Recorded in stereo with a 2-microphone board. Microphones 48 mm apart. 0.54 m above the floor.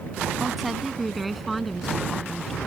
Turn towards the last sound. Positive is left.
turn(degrees=5)  # may be behind; listen again after turning